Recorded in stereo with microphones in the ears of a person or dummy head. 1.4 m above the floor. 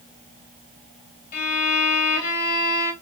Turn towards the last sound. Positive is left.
turn(degrees=45)  # may be behind; listen again after turning